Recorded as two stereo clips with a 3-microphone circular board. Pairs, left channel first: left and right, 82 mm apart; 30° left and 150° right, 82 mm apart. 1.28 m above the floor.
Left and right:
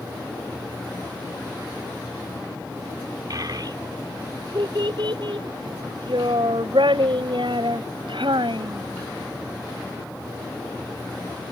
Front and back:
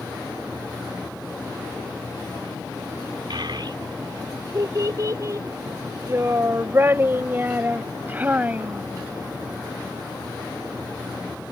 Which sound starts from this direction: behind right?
A child speaking, at 3.3 s.